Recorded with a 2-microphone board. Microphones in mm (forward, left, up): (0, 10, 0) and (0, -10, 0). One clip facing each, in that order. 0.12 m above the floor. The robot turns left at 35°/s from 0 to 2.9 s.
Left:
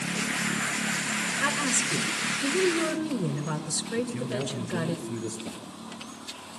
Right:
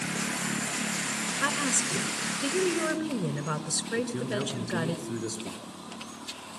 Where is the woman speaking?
5° right (ahead or behind), 1.4 m; by 5.0 s 25° right (ahead or behind), 1.4 m.